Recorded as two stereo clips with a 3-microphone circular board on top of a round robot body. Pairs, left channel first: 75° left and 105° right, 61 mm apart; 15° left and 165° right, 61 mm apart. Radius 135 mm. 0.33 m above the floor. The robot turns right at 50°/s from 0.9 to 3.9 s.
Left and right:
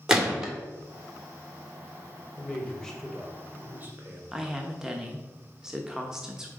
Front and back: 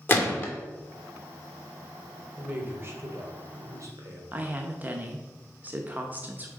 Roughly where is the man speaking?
Behind left.